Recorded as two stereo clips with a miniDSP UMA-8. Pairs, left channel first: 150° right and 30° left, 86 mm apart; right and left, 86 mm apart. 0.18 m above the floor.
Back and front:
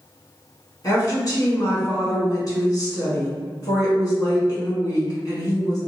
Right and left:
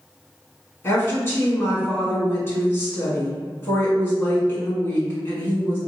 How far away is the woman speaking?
About 1.4 m.